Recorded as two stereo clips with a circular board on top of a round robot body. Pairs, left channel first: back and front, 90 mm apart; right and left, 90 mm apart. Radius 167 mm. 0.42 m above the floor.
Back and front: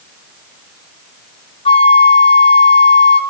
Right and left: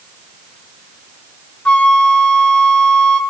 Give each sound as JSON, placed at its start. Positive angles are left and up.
{"t": 1.6, "sound": "a flute", "azimuth_deg": -170, "distance_m": 0.6}